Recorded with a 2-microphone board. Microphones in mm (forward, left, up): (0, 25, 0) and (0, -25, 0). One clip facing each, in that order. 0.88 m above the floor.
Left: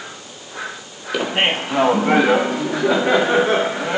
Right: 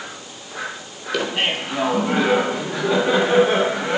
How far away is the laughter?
About 0.5 m.